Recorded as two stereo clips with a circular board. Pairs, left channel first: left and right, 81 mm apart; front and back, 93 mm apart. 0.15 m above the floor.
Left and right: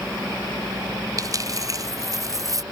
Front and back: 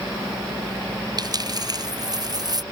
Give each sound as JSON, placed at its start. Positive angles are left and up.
{"t": 1.2, "sound": "a dropped coin", "azimuth_deg": -135}